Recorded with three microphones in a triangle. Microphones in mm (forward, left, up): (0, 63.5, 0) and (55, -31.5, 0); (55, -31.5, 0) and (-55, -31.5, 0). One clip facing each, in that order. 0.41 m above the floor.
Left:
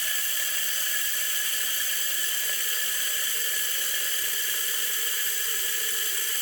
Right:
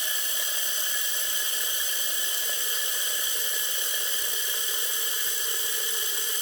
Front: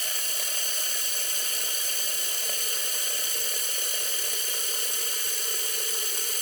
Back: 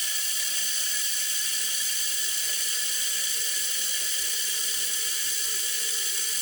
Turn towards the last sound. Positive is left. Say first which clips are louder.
# even, front 2 dB
turn(degrees=5)